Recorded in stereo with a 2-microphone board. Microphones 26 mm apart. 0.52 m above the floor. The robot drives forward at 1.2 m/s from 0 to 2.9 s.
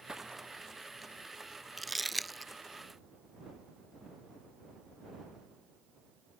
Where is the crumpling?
Centre (ahead or behind).